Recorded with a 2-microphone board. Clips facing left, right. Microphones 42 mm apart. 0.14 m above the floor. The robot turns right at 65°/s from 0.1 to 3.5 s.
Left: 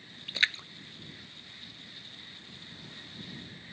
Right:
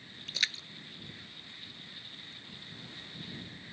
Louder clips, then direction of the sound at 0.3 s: Left 5 dB; 25° left (ahead or behind).